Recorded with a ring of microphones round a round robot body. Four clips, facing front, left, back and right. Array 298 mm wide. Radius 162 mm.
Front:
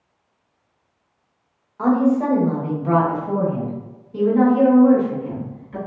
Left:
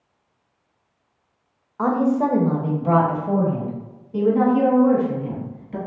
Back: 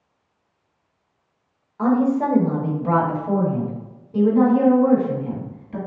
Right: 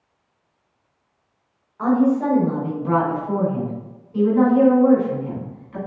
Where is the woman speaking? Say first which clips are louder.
Right 1 dB, front 1 dB; 105° left, 1.2 m; by 5.8 s 130° left, 3 m.